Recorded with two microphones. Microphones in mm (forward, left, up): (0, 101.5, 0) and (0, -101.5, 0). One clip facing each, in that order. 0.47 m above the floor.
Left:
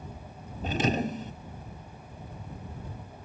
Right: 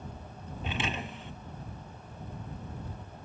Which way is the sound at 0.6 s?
40° left (ahead or behind).